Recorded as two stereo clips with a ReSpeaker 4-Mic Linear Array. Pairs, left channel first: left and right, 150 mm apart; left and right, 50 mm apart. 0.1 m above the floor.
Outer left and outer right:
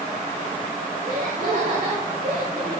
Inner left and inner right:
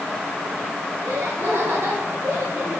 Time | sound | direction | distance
1.0 | laughter | 60° right (ahead or behind) | 8 m